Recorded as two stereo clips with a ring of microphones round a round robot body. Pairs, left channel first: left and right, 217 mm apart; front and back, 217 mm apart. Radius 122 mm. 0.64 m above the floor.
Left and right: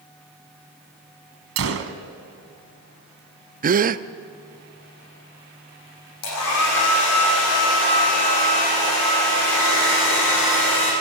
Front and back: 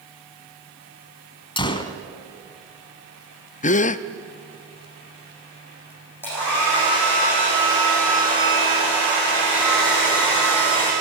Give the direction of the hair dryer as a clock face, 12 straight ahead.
9 o'clock.